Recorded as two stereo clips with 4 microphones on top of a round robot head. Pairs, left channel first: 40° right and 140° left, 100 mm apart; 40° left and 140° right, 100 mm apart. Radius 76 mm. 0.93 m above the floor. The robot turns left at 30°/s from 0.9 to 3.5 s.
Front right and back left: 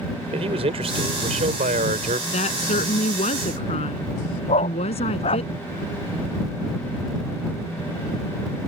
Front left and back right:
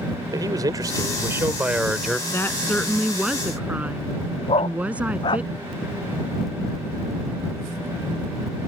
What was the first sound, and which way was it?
A man speaking, 165° left.